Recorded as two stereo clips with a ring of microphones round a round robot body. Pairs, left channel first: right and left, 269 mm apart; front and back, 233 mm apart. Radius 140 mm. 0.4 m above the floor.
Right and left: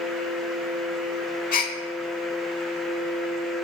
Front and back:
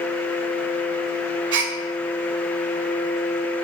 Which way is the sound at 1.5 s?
145° right.